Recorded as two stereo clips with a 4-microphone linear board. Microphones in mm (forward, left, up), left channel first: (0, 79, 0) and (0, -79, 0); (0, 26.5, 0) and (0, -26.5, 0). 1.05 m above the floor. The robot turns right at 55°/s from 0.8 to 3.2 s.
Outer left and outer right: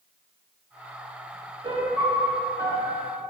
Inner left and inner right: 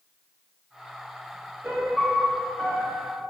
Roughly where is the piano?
Ahead right.